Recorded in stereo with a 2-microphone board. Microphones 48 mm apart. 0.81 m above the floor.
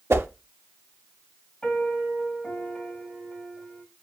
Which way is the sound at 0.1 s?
65° right (ahead or behind).